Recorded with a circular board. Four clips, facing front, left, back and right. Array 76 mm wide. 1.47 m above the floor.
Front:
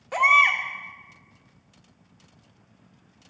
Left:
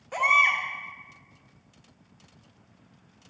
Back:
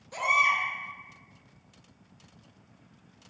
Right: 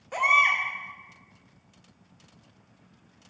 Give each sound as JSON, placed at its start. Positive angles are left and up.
{"t": 0.1, "sound": "a baby crying", "azimuth_deg": 0, "distance_m": 2.5}